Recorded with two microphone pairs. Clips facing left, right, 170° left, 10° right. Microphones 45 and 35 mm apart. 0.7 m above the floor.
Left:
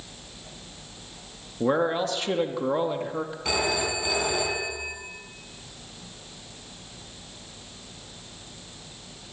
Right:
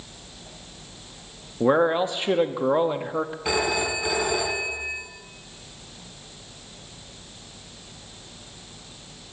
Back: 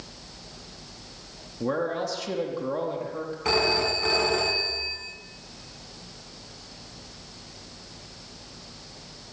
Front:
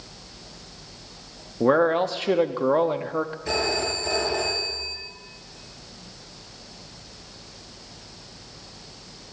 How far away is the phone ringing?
About 3.5 m.